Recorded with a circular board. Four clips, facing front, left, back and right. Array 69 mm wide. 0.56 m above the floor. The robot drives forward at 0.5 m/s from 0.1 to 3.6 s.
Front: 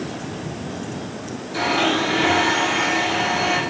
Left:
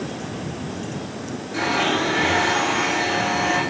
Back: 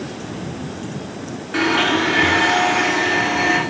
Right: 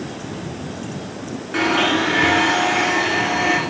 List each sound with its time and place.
1.5 s a blender: 140° right, 2.0 m; by 3.6 s 155° right, 3 m